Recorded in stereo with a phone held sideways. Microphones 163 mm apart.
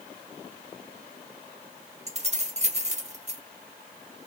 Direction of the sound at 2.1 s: 45° right (ahead or behind).